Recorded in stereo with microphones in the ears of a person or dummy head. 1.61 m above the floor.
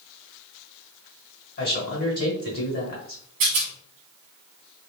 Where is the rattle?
40° right (ahead or behind), 0.8 m.